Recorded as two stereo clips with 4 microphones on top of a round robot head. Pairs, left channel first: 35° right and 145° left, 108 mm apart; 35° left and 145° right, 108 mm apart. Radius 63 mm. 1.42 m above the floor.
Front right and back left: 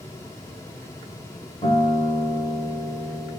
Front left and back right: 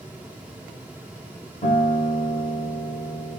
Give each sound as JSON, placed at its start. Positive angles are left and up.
{"t": 1.6, "sound": "a guitar", "azimuth_deg": 15, "distance_m": 1.7}